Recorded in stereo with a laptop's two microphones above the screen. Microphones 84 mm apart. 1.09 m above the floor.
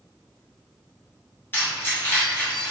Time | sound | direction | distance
1.5 | keys jangling | 25° left (ahead or behind) | 1.0 m